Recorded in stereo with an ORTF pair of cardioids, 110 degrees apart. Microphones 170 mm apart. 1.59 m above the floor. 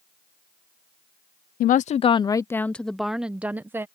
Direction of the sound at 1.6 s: 55° left.